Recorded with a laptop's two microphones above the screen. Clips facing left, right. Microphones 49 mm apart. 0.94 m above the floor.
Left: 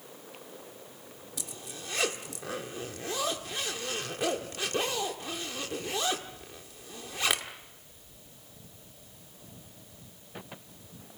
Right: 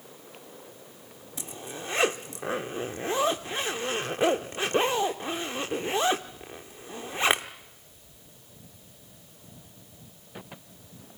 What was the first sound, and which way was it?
A zipper, 30° right (ahead or behind).